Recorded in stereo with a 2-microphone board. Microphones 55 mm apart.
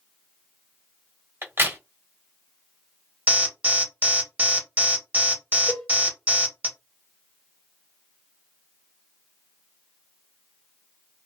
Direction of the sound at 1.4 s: 45° right (ahead or behind).